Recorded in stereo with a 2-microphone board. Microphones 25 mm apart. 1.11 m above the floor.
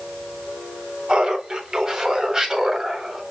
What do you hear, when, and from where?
1.1 s laughter: 35° right (ahead or behind), 4 m; by 3.2 s 15° right (ahead or behind), 4 m